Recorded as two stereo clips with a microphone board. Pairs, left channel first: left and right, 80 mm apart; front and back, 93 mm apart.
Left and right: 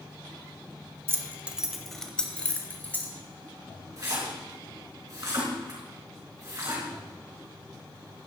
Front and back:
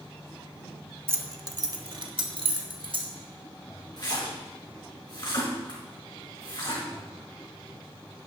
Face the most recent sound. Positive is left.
turn(degrees=-40)